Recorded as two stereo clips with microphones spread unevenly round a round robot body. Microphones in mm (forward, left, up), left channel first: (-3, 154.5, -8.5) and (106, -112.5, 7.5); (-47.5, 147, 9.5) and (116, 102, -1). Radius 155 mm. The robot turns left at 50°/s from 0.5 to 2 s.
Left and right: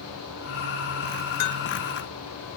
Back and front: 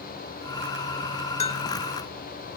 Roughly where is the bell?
Behind left.